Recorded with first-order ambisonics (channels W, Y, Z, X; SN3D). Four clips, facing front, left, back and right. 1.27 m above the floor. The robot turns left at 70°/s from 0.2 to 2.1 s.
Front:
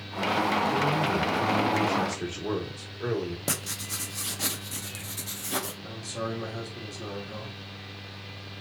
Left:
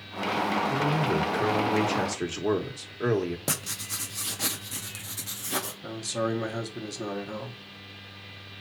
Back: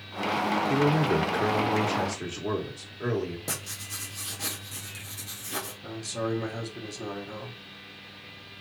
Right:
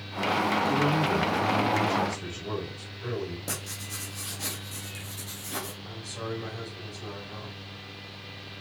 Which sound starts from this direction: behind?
A man speaking, at 0.7 s.